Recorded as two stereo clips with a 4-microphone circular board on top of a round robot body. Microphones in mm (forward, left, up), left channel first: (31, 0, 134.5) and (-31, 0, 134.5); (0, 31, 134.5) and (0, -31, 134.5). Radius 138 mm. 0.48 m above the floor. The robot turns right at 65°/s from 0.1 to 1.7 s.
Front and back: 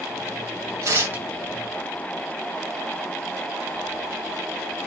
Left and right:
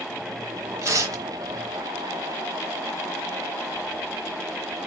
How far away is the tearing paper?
About 0.8 m.